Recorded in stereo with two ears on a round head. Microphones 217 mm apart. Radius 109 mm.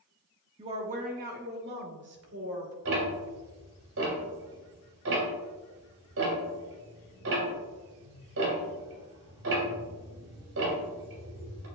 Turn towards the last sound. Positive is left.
turn(degrees=-60)  # may be behind; listen again after turning